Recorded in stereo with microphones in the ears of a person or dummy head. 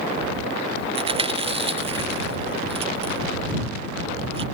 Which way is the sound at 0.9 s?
35° right (ahead or behind).